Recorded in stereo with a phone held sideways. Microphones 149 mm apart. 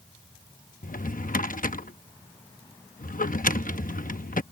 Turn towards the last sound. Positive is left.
turn(degrees=65)  # may be behind; listen again after turning